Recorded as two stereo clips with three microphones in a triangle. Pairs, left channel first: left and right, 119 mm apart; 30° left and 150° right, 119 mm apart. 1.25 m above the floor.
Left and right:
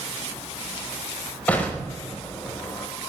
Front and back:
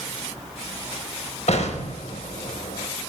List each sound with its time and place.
1.5 s an explosion: 10° left, 5.5 m